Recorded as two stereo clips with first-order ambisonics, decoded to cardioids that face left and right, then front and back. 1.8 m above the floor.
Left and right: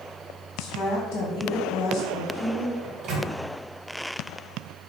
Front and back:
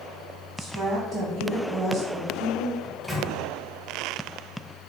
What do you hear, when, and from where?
0.6 s a woman speaking: 120° left, 1.1 m
2.8 s a microwave: 95° right, 0.8 m